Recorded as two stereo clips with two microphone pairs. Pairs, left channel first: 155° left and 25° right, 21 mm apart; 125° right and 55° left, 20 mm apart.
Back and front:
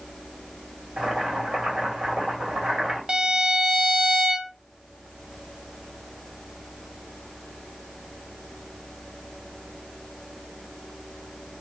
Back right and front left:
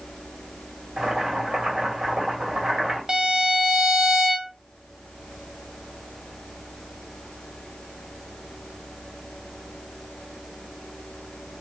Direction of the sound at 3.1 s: 20° left.